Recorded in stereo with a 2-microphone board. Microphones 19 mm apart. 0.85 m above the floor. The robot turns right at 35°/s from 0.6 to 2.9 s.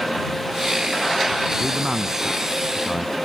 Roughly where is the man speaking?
Ahead right.